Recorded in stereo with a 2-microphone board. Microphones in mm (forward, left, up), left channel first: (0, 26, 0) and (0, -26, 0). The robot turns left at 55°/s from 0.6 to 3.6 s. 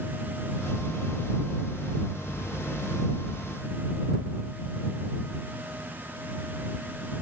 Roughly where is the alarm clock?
No alarm clock in this recording.